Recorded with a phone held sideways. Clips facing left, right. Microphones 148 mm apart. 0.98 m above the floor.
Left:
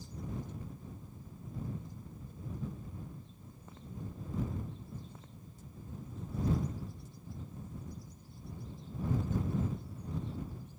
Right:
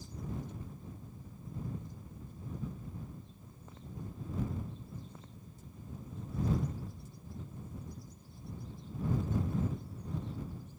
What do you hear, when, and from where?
Only background noise.